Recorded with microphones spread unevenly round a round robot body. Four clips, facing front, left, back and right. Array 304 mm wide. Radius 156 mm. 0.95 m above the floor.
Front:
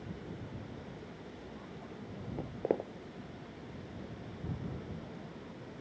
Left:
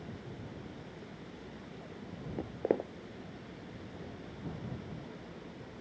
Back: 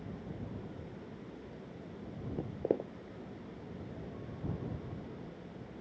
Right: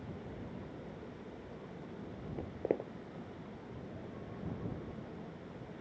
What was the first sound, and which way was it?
Footsteps, 100° left.